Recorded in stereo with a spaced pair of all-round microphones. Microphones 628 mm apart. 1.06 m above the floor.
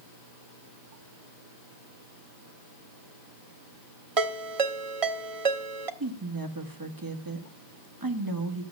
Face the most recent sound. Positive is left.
turn(degrees=-35)  # may be behind; listen again after turning